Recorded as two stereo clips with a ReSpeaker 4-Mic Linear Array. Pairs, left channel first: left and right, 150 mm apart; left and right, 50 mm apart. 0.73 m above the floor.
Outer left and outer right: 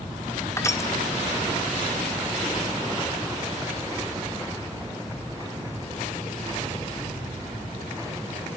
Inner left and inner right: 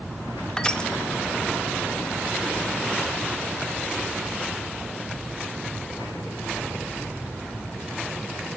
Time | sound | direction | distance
0.6 | crushing | 20° left (ahead or behind) | 0.5 m